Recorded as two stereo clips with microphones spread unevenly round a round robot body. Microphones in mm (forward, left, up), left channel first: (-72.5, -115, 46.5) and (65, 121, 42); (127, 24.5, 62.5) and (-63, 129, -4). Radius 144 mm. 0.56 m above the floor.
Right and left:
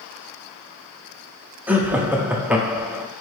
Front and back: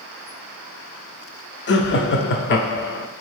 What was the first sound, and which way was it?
Laughter, 20° right.